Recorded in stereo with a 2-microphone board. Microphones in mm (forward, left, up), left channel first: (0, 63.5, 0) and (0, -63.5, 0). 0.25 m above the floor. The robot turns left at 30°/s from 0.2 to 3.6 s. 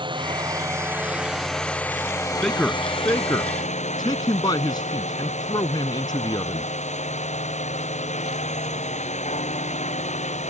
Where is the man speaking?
5° left (ahead or behind); by 6.7 s 35° left (ahead or behind).